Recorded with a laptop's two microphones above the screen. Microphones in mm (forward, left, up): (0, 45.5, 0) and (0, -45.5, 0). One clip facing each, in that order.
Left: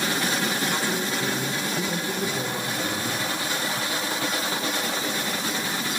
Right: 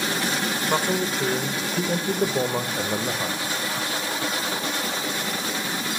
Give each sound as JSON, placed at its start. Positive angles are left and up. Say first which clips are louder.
{"t": 0.7, "sound": "a man speaking", "louder": "right 3 dB", "side_deg": -60, "distance_m": 0.6}